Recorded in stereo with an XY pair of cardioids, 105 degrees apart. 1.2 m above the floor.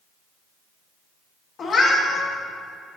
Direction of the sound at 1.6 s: 50° left.